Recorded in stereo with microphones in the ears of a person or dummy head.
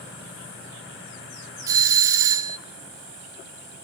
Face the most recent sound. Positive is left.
turn(degrees=-20)  # may be behind; listen again after turning